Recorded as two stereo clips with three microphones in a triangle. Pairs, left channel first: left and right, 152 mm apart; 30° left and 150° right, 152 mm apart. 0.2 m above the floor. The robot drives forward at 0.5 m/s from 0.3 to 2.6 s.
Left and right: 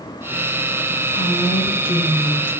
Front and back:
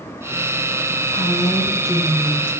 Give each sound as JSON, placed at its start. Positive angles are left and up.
{"t": 1.1, "sound": "a woman speaking", "azimuth_deg": 70, "distance_m": 4.0}